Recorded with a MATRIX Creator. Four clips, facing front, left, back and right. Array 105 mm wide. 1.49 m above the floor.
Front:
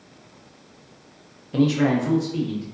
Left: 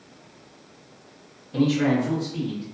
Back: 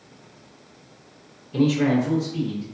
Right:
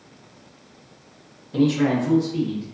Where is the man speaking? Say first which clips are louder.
Right 2 dB, even; 5° right, 0.7 m; by 2.6 s 30° right, 1.5 m.